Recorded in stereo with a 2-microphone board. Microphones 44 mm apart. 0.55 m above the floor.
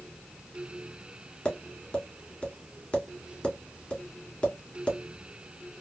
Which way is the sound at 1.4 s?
25° left (ahead or behind).